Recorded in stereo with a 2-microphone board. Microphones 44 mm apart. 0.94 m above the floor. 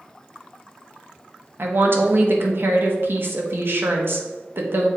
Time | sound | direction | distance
1.6 | a woman speaking | 55° right (ahead or behind) | 1.1 m